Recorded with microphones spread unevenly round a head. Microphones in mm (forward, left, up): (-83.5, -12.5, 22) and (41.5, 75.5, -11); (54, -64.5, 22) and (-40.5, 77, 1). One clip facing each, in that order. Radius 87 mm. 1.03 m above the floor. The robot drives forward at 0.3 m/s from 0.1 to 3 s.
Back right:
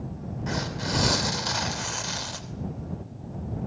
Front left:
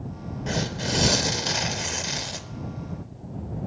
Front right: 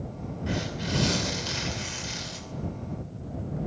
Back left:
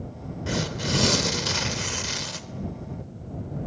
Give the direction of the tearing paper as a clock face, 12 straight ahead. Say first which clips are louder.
Front left 3 dB, back left 3 dB; 9 o'clock.